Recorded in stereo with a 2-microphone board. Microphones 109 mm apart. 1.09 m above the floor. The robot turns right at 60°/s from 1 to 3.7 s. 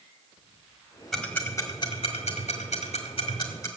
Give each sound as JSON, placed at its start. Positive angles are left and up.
{"t": 1.1, "sound": "ticking", "side_deg": -5, "distance_m": 2.0}